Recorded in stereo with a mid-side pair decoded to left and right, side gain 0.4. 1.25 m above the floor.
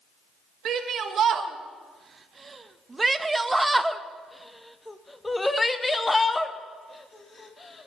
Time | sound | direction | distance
0.7 | a shout | 70° right | 2.0 m